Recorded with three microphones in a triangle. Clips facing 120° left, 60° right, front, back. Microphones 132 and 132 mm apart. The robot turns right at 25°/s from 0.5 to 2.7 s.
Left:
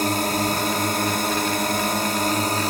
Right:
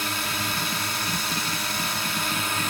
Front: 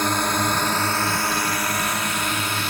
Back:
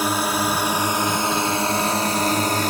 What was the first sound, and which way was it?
A drone, 100° left.